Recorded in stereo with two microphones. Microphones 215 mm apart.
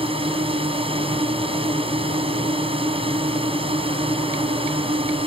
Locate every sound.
0.0 s a drone: 25° right (ahead or behind)